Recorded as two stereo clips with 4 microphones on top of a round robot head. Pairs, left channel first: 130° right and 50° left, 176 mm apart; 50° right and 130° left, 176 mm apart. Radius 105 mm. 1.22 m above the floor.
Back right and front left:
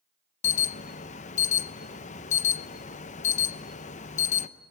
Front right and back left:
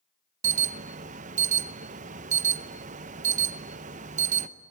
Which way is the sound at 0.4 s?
Straight behind.